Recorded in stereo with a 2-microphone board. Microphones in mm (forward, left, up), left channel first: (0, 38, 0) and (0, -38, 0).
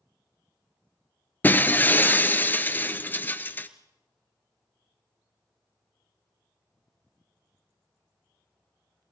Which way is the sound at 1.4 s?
25° left (ahead or behind).